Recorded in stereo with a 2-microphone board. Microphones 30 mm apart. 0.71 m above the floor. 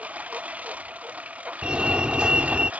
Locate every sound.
0.0 s a lawn mower: 55° right (ahead or behind)
1.6 s a fire alarm: 35° right (ahead or behind)